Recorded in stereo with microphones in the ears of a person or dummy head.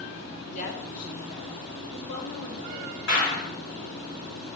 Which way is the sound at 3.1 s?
60° left (ahead or behind).